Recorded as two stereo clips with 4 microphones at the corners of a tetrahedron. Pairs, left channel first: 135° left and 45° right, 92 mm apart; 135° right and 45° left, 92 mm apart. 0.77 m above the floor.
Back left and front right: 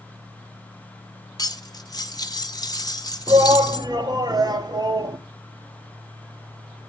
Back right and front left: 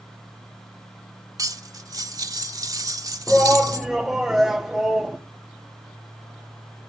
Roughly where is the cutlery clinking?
Left.